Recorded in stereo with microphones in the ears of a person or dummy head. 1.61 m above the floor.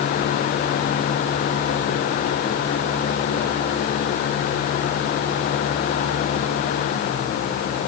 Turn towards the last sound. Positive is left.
No sound to turn to.